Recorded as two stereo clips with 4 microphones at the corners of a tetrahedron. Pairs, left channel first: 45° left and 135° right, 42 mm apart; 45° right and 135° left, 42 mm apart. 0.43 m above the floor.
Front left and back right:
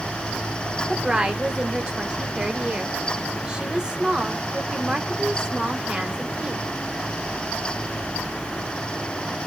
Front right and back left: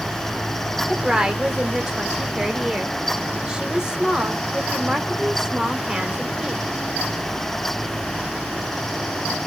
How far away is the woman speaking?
About 1.0 m.